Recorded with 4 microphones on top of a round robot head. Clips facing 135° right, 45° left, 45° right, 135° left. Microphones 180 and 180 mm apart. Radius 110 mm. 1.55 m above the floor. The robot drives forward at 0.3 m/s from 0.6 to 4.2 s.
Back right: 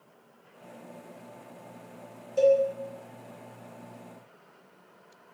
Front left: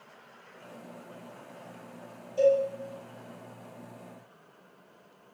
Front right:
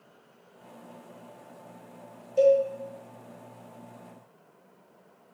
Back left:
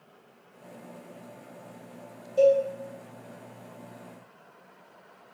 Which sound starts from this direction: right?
A cowbell, at 2.4 s.